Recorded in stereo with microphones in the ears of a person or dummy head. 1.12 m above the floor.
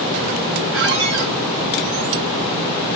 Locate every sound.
0.7 s a squeak: 80° right, 3 m